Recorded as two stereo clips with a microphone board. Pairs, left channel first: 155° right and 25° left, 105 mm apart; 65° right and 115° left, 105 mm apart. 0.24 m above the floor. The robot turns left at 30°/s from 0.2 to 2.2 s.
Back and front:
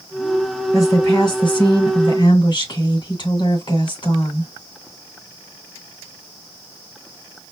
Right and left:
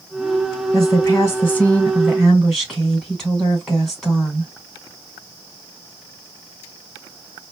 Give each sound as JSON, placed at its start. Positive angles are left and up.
{"t": 0.7, "sound": "a woman speaking", "azimuth_deg": -110, "distance_m": 2.5}